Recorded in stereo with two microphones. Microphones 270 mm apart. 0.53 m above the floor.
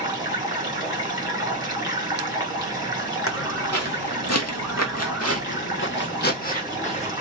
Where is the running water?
15° right (ahead or behind), 1.3 m.